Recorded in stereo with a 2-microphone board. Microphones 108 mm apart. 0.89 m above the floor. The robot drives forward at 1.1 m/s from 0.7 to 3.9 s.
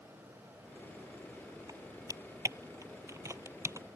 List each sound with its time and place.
1.7 s typing on a keyboard: 30° right (ahead or behind); by 3.9 s 25° right (ahead or behind)